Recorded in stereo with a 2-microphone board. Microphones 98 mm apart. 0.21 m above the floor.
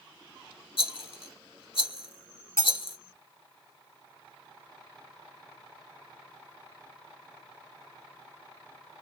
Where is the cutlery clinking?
30° left (ahead or behind), 1.3 m.